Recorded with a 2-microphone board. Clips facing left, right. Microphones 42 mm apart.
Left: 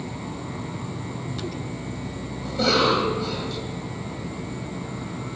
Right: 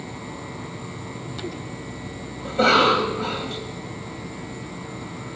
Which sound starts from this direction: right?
A cough, at 2.5 s.